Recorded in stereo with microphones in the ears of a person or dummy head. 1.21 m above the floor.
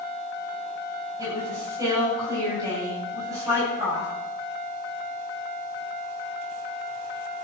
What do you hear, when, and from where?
1.2 s a woman speaking: 15° right (ahead or behind), 9 m